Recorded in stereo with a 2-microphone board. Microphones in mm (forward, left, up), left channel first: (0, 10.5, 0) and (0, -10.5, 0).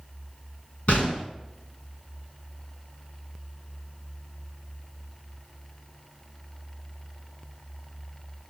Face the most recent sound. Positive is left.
turn(degrees=85)